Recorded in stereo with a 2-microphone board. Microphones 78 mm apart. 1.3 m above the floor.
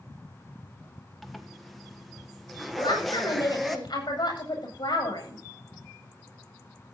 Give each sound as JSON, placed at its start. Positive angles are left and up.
{"t": 1.2, "sound": "a zipper", "side_deg": 0, "distance_m": 1.3}
{"t": 2.8, "sound": "a woman speaking", "side_deg": 80, "distance_m": 8.5}